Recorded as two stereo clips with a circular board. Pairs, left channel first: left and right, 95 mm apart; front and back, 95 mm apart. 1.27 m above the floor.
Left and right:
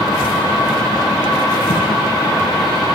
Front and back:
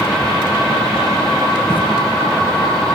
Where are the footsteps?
110° left, 4 m.